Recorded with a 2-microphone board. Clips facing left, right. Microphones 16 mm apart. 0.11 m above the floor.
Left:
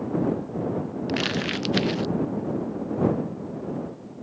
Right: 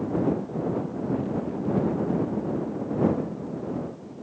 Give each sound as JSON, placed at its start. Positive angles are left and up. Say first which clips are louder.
{"t": 1.1, "sound": "crumpling", "louder": "left 4 dB", "side_deg": 85}